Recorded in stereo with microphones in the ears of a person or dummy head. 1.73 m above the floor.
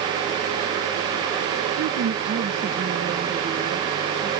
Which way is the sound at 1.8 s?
70° right (ahead or behind).